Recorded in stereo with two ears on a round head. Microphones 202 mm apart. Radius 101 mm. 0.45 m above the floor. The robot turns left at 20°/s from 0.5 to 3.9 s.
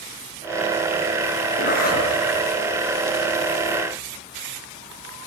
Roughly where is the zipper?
Left.